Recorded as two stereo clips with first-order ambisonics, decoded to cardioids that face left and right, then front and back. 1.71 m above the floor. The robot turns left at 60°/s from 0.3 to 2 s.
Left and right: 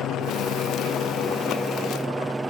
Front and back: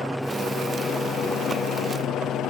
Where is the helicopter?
90° left; by 2.5 s 10° right.